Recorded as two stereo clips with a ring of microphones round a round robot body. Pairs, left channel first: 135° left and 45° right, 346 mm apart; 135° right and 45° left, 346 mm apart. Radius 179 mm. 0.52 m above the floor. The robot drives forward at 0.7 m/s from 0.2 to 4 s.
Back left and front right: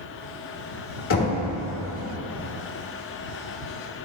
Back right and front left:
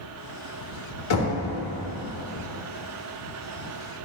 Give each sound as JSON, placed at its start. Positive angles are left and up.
{"t": 1.1, "sound": "knocking", "azimuth_deg": -175, "distance_m": 1.5}